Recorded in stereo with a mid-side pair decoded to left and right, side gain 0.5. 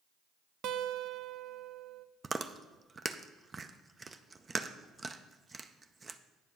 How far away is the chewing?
About 0.5 m.